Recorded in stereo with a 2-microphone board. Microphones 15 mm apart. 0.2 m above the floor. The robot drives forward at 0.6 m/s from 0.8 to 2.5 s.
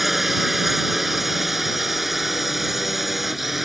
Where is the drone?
15° right (ahead or behind); by 3.7 s 10° right (ahead or behind).